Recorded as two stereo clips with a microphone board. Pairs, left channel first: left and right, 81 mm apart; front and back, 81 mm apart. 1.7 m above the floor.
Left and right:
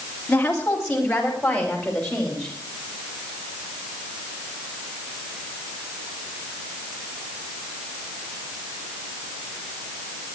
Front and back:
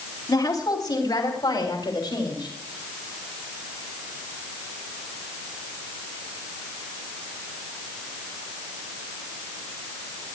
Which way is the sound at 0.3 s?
15° left.